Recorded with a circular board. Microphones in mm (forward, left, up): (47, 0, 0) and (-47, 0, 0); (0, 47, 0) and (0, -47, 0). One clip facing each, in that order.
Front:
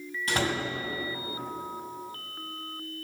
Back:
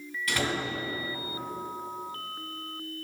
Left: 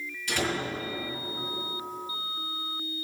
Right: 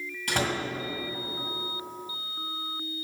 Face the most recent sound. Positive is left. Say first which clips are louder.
# front 2 dB, right 1 dB
turn(degrees=-65)